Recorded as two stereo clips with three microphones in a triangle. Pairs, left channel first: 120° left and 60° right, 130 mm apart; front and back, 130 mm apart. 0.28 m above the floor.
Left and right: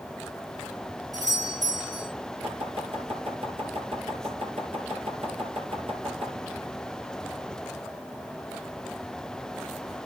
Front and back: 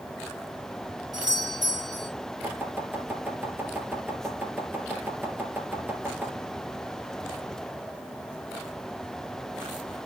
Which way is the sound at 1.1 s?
120° right.